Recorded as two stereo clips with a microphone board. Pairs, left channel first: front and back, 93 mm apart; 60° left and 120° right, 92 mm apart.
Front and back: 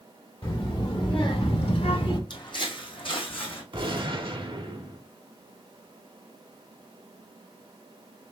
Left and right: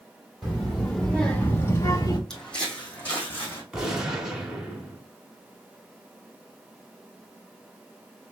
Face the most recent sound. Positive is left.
turn(degrees=155)